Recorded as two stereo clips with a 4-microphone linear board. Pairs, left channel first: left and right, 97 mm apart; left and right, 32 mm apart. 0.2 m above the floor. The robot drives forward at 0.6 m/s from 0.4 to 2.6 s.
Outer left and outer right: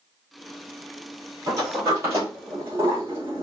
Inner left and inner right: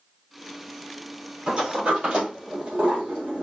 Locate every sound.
1.5 s a sliding door: 35° right (ahead or behind), 2 m; by 3.4 s 30° right (ahead or behind), 3 m